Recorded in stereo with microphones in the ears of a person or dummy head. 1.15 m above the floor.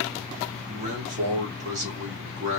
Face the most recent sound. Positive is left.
turn(degrees=-40)  # may be behind; listen again after turning